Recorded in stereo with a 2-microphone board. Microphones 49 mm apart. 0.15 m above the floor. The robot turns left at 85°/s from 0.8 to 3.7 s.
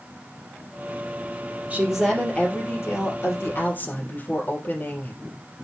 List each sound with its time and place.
1.7 s a woman speaking: 150° right, 3.5 m; by 5.2 s 40° left, 3.5 m